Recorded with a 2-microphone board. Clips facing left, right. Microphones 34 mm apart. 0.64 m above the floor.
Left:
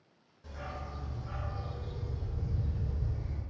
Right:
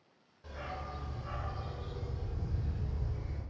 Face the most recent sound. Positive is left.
turn(degrees=-75)  # may be behind; listen again after turning